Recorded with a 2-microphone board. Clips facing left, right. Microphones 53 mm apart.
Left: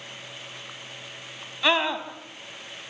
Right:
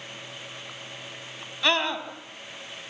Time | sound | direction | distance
1.6 | a scream | 10° left (ahead or behind) | 1.6 m